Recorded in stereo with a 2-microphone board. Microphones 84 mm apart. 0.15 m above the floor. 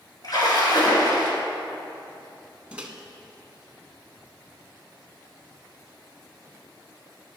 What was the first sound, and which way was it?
A splash, 50° left (ahead or behind).